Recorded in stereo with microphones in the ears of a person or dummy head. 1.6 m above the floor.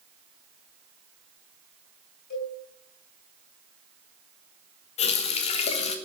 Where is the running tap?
35° left (ahead or behind), 1.3 m.